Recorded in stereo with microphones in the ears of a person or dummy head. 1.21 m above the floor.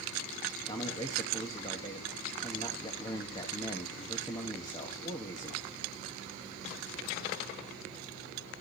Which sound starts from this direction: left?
A man speaking, at 0.7 s.